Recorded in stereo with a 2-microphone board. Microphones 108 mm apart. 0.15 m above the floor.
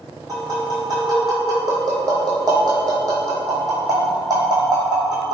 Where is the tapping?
35° right (ahead or behind), 1.5 m.